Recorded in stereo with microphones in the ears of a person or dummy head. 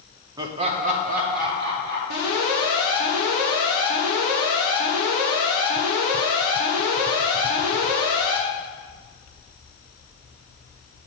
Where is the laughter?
20° right (ahead or behind), 0.7 m; by 2.0 s 60° right (ahead or behind), 2.5 m.